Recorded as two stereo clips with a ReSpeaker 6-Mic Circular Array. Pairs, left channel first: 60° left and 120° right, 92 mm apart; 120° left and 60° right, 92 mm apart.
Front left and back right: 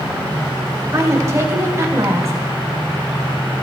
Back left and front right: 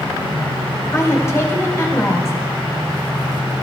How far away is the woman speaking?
About 4 m.